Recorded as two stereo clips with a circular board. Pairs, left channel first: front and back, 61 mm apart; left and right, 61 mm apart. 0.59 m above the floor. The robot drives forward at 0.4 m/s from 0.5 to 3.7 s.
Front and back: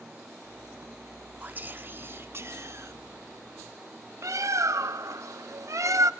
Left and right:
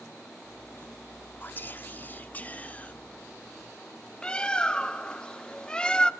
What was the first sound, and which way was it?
Whispering, 130° left.